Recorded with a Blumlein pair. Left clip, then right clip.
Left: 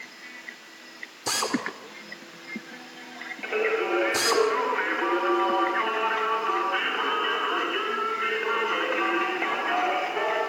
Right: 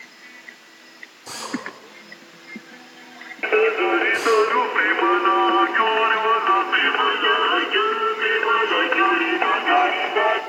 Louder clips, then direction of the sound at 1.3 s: Left 3 dB; 60° left.